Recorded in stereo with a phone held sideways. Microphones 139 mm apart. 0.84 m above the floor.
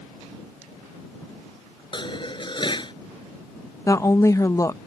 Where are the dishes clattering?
35° left (ahead or behind).